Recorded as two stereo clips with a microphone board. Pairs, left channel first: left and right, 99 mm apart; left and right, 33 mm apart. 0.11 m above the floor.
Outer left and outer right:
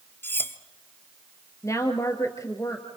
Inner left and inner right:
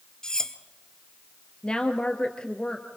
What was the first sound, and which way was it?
Cutlery clinking, 20° left (ahead or behind).